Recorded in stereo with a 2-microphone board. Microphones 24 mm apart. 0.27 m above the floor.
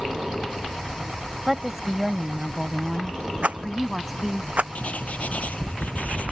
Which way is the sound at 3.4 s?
65° right (ahead or behind).